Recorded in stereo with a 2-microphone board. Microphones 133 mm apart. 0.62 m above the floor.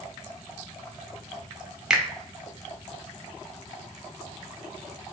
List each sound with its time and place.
1.9 s a finger snap: 5° right (ahead or behind), 0.6 m